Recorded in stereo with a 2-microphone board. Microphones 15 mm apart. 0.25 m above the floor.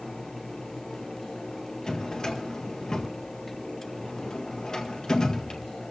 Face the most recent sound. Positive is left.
turn(degrees=35)  # may be behind; listen again after turning